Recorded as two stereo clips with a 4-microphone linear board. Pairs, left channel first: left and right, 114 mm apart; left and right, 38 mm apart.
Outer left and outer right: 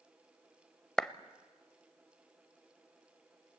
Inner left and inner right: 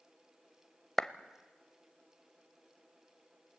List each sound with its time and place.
1.0 s a clap: 5° left (ahead or behind), 0.8 m